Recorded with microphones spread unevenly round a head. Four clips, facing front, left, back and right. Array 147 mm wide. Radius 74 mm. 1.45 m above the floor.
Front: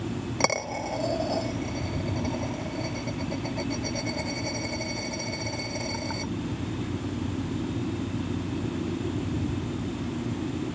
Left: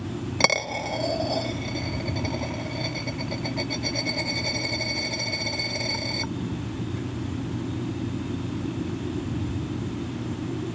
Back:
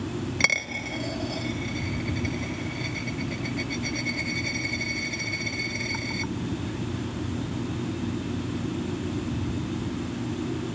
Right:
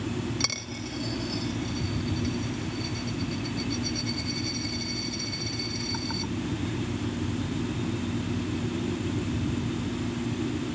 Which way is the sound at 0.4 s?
60° left.